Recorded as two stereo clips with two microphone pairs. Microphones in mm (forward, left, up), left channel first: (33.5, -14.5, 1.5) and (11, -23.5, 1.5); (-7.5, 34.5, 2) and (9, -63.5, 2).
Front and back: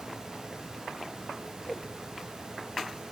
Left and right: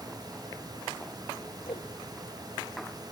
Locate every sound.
1.6 s a whoosh: 80° left, 1.2 m